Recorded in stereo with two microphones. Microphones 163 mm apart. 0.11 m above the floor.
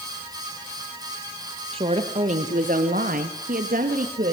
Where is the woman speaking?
35° right (ahead or behind), 3 m; by 4.3 s 50° right (ahead or behind), 3.5 m.